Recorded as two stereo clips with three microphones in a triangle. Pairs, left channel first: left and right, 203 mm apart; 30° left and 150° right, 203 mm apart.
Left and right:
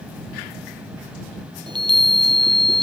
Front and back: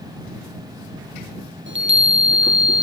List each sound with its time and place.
1.7 s a chime: 155° right